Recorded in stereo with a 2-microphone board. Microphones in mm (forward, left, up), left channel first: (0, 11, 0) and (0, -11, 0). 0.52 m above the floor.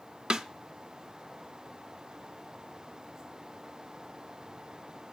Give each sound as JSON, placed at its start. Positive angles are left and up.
{"t": 0.3, "sound": "a snare drum", "side_deg": -40, "distance_m": 0.6}